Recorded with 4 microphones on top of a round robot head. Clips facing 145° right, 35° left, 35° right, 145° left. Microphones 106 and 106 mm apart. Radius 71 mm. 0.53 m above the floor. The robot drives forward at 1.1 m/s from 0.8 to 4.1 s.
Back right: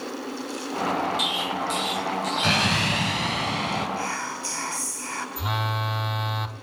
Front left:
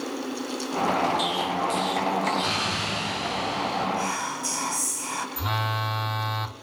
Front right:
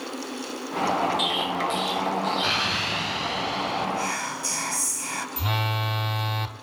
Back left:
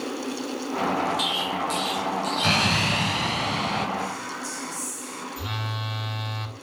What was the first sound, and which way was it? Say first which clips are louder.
An explosion: front left 2 dB, front right 1 dB; 165° right.